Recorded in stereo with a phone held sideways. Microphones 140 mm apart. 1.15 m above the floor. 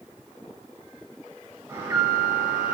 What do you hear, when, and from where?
1.7 s an alarm: 25° right (ahead or behind), 5.5 m